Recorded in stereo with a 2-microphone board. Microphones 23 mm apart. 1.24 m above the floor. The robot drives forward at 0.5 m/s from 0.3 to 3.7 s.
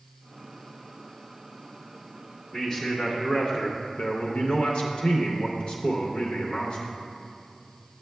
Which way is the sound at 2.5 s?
35° left (ahead or behind).